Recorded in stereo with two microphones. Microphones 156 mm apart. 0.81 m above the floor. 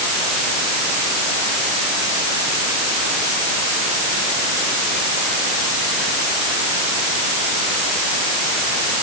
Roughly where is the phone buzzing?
No phone buzzing in this recording.